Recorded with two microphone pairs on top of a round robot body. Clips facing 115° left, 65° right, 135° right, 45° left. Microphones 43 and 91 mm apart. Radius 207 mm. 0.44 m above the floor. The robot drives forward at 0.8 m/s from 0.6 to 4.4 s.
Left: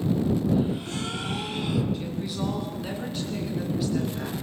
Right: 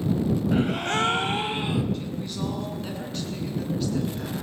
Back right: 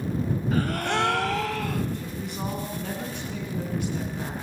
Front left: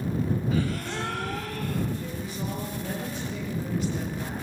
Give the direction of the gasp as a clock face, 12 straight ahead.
3 o'clock.